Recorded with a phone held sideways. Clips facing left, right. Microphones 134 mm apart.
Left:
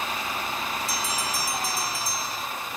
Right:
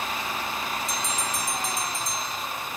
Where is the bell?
5° left (ahead or behind).